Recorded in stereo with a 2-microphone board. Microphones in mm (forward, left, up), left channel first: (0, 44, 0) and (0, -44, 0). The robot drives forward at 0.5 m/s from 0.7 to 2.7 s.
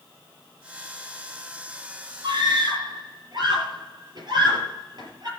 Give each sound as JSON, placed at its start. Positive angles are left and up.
{"t": 2.2, "sound": "a scream", "side_deg": -50, "distance_m": 5.5}